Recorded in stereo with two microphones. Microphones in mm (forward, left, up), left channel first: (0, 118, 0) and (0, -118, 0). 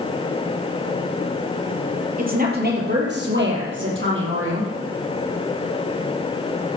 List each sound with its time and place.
2.2 s a woman speaking: 35° right (ahead or behind), 4 m; by 4.7 s 60° right (ahead or behind), 5.5 m